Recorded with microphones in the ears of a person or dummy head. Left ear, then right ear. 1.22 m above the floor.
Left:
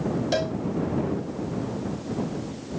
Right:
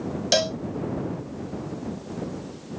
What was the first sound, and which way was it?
A cowbell, 50° right (ahead or behind).